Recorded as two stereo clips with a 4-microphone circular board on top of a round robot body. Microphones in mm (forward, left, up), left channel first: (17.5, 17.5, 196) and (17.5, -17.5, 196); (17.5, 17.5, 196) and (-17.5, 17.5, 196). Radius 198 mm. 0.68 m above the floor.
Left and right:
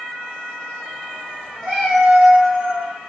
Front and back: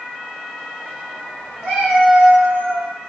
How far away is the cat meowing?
About 0.6 m.